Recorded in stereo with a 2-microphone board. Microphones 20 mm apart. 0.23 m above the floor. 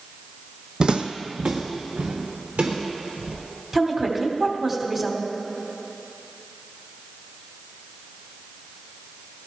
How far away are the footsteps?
About 0.7 m.